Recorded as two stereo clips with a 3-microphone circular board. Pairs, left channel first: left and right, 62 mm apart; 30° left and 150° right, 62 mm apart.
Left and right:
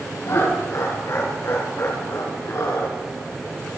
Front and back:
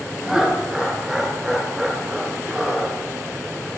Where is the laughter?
130° left, 4.5 m.